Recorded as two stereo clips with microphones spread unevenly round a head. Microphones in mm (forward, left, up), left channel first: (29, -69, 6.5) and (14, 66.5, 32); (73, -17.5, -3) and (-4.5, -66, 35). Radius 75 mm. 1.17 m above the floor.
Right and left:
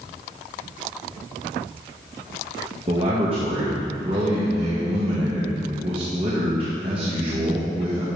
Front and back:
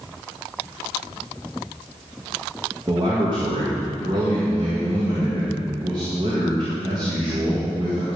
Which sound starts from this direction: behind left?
A man speaking, at 2.9 s.